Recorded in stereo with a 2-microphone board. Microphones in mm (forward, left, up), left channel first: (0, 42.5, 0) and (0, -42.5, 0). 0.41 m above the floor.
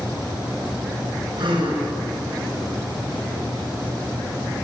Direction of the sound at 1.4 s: 70° right (ahead or behind).